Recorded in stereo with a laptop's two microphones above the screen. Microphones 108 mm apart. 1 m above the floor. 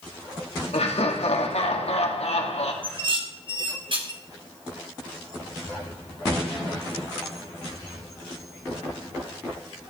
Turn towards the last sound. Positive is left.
turn(degrees=-55)  # may be behind; listen again after turning